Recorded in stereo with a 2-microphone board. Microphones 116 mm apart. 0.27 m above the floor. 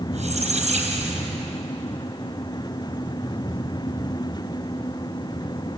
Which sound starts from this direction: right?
A squeak, at 0.1 s.